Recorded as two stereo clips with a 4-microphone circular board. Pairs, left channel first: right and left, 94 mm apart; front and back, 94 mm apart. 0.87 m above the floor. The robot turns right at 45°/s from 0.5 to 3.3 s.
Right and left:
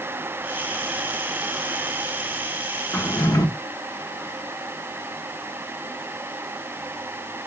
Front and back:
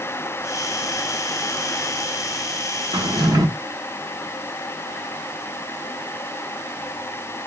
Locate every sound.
2.9 s a drawer: 155° right, 0.6 m; by 3.5 s 135° right, 0.6 m